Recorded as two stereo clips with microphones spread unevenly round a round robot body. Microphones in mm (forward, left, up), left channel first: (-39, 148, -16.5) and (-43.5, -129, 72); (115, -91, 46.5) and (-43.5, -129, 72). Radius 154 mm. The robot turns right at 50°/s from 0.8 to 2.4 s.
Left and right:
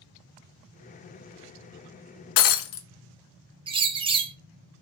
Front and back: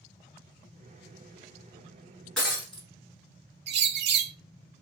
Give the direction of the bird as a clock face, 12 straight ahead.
6 o'clock.